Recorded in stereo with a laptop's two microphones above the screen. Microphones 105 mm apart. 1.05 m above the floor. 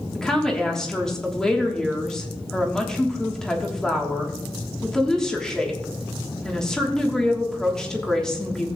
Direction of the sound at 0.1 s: 5° left (ahead or behind).